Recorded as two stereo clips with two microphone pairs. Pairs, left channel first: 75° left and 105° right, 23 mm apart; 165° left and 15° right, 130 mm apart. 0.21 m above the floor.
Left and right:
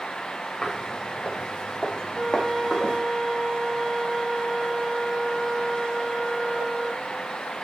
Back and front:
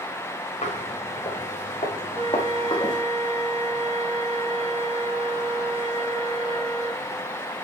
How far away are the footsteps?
About 4 m.